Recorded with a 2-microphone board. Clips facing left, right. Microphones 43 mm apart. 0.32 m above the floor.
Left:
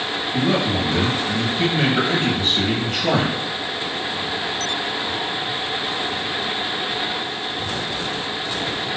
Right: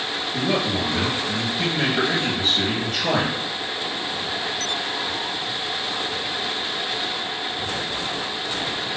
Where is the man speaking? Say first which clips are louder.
Left 3 dB; 50° left (ahead or behind), 2 m.